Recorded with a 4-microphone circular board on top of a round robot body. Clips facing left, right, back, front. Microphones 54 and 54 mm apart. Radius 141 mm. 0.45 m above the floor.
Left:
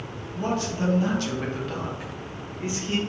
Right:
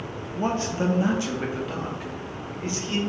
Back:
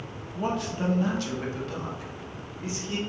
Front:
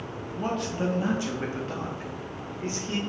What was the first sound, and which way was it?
A man speaking, 100° right.